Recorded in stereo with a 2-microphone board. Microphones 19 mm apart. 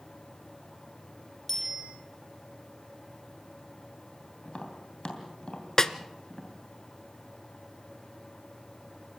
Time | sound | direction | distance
1.5 | a bicycle bell | 20° left (ahead or behind) | 8 m
4.5 | tapping | 60° left (ahead or behind) | 3 m
5.8 | a snare drum | 30° left (ahead or behind) | 0.7 m